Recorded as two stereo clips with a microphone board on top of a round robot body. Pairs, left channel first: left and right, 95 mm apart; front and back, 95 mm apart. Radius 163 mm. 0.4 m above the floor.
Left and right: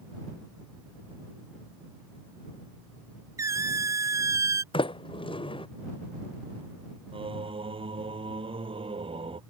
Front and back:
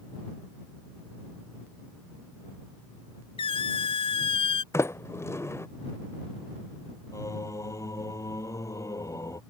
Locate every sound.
3.4 s a squeak: 30° right
4.7 s a sliding door: 60° left
7.1 s singing: 60° right